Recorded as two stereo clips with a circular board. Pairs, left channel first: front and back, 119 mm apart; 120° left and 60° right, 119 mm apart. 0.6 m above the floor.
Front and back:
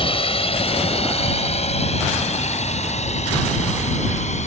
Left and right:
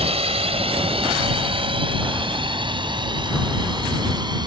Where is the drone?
35° right; by 4.5 s 10° right.